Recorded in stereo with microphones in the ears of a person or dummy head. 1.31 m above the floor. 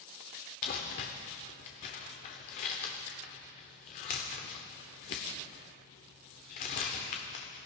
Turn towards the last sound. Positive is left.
turn(degrees=30)  # may be behind; listen again after turning